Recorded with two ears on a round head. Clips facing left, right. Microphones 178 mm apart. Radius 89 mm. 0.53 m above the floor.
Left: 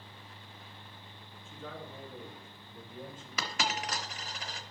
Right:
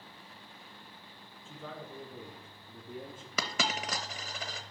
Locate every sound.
1.4 s a man speaking: 55° right (ahead or behind), 3.5 m; by 3.3 s 80° right, 4.5 m
3.4 s a dropped coin: 75° right (ahead or behind), 0.9 m